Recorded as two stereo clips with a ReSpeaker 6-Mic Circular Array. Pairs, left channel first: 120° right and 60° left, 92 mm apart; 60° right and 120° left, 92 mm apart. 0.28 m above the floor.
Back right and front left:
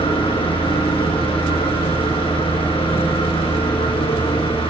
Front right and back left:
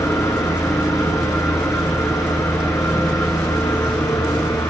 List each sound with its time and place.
0.0 s an engine running: 115° right, 4 m